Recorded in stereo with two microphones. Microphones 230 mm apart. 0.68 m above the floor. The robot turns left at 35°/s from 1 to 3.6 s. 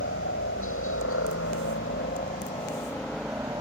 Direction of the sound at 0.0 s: 60° left (ahead or behind).